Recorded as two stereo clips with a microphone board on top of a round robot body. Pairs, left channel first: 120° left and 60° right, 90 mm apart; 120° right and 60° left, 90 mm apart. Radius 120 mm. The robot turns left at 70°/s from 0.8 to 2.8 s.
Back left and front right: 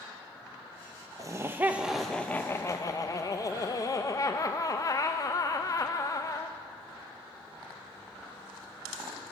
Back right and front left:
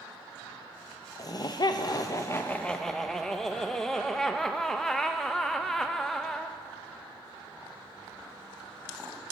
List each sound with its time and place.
1.2 s laughter: 95° right, 0.6 m; by 6.6 s 155° left, 0.6 m